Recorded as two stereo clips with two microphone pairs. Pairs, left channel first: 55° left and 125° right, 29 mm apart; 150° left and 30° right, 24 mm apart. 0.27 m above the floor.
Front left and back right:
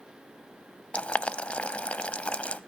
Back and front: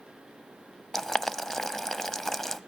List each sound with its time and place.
0.9 s boiling: 75° left, 0.6 m